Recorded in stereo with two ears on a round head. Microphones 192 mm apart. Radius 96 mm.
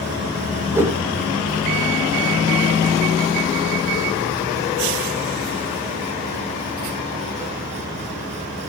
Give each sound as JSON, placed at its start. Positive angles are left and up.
{"t": 0.7, "sound": "a whoosh", "side_deg": -10, "distance_m": 1.9}